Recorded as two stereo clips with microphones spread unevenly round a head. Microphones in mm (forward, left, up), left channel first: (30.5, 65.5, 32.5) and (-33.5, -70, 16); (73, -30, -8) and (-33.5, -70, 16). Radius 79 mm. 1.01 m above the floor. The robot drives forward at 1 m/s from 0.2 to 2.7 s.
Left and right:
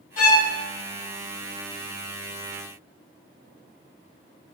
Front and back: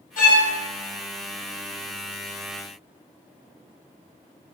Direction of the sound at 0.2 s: 30° left.